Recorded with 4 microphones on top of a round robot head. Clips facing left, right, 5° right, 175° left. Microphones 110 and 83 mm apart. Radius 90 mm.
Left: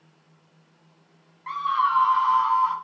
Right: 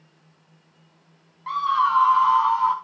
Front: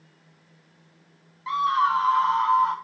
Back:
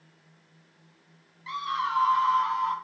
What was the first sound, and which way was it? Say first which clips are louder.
A scream: right 2 dB, front 8 dB; 30° right.